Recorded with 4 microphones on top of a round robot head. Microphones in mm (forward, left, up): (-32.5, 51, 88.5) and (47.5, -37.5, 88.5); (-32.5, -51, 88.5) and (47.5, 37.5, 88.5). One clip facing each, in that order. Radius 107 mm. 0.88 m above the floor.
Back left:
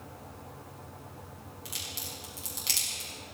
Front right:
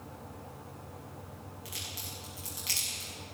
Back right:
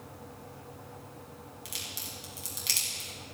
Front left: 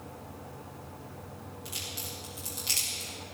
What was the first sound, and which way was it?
A crack, 165° right.